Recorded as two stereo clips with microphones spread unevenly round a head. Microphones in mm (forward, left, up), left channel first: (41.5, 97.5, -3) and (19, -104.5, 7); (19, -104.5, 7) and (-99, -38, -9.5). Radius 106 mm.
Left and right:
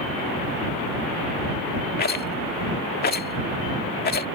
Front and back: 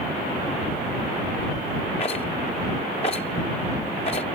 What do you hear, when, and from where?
2.0 s a rattle: 40° left